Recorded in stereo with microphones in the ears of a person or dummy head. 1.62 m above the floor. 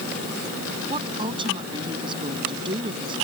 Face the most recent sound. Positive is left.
turn(degrees=-35)  # may be behind; listen again after turning